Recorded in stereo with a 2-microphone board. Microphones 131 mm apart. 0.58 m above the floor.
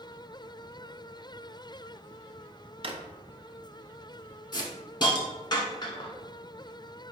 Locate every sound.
2.8 s a drawer: 45° right (ahead or behind), 0.5 m
4.5 s a hiss: 35° left (ahead or behind), 1.0 m